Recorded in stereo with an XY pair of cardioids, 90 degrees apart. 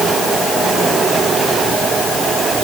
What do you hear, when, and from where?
Only background noise.